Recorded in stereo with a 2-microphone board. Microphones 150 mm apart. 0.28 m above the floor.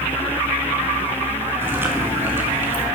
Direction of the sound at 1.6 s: 15° right (ahead or behind).